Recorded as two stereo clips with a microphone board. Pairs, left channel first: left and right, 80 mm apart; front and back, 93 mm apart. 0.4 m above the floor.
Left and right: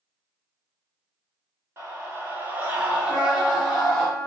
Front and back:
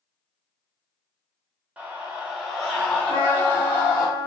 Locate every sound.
1.8 s a scream: 115° right, 1.2 m; by 4.1 s 5° left, 1.2 m
3.1 s a trumpet: 20° left, 0.9 m